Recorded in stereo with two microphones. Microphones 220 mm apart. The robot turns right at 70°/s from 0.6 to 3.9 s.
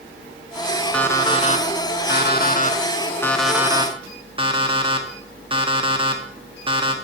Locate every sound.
0.9 s an alarm clock: 5° left, 1.2 m; by 6.9 s 145° right, 1.2 m